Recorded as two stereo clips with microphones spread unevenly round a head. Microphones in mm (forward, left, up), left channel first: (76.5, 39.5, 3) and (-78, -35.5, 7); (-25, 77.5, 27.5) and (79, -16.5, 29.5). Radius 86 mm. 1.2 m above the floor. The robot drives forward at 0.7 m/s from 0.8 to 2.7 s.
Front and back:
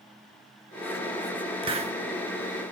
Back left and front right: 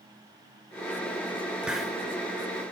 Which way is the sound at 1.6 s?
120° right.